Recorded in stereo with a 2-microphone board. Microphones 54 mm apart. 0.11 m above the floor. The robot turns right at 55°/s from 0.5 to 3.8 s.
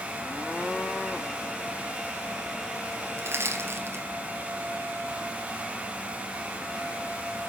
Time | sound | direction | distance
3.2 | crushing | 50° right (ahead or behind) | 2 m